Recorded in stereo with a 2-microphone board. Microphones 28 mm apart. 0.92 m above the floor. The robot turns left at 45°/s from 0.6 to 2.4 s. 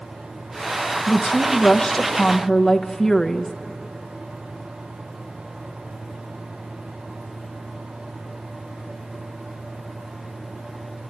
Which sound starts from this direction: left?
A woman speaking, at 1.1 s.